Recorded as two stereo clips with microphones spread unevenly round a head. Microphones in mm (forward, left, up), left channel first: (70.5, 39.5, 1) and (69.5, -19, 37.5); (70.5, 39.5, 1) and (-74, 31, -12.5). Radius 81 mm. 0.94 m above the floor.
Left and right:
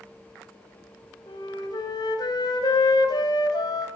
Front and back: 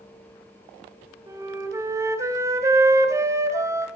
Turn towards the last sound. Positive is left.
turn(degrees=115)